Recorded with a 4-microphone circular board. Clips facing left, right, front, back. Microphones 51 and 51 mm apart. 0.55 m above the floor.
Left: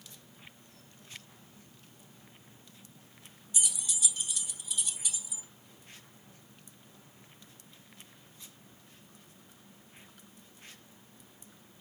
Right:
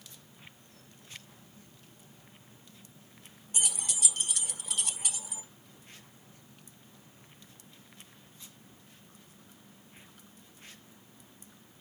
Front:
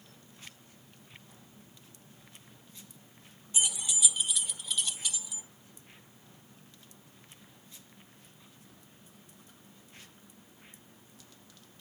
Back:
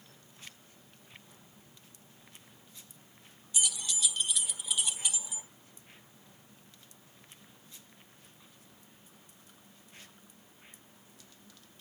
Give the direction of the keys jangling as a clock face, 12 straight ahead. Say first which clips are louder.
Right 2 dB, front 1 dB; 2 o'clock.